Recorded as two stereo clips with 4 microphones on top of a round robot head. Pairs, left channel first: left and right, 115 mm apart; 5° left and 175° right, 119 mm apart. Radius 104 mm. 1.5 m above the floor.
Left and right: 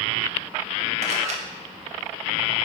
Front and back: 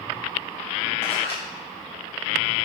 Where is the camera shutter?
70° right, 1.2 m.